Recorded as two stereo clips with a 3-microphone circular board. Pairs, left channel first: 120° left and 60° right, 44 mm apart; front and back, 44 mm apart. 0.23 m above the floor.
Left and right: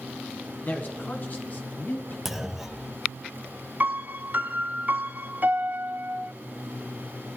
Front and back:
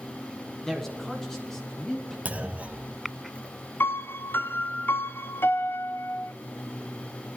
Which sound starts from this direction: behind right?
A clunk, at 2.2 s.